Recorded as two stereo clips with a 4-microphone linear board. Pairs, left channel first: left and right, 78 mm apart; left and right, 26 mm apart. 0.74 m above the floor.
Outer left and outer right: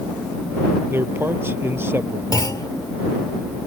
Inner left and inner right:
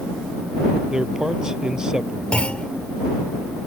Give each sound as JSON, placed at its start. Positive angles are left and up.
{"t": 0.9, "sound": "a man speaking", "side_deg": -30}
{"t": 2.3, "sound": "a clunk", "side_deg": 55}